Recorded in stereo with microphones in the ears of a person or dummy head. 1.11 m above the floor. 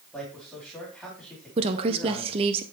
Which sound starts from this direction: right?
A woman speaking, at 1.6 s.